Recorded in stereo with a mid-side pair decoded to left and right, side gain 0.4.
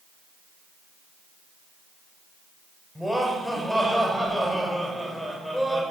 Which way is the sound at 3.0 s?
5° right.